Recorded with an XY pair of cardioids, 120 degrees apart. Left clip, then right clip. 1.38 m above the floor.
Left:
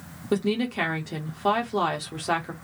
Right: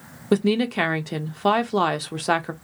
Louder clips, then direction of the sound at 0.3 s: Right 4 dB; 35° right.